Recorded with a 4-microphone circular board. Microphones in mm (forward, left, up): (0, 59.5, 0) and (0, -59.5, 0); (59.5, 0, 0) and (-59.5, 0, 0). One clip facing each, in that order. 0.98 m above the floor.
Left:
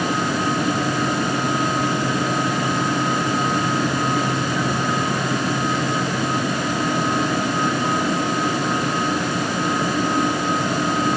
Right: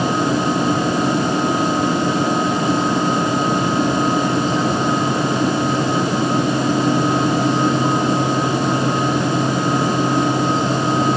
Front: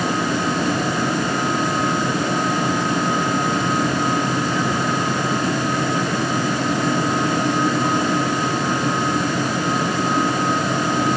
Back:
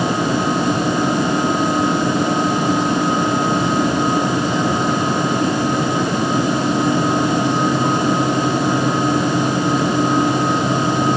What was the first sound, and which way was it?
Only background noise.